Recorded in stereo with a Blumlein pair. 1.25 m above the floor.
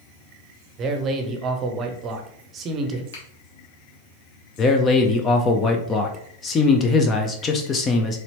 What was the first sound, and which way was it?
A man speaking, 30° right.